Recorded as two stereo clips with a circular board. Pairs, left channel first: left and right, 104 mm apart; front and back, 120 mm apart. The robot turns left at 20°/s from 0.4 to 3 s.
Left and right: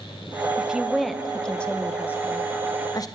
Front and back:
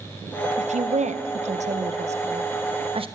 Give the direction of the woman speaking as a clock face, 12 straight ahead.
6 o'clock.